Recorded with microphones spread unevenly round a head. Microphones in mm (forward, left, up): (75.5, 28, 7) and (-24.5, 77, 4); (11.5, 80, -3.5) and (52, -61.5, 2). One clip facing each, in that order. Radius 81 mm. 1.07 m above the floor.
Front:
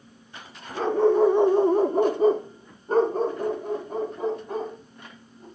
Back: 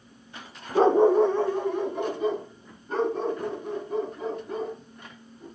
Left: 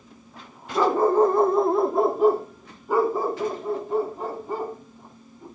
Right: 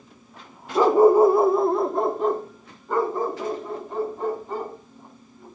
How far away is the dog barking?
About 0.7 m.